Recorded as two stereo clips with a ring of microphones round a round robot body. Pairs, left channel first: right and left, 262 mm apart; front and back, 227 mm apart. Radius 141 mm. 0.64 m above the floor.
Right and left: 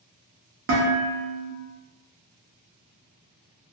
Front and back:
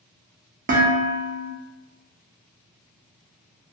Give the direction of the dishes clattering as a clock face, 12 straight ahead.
8 o'clock.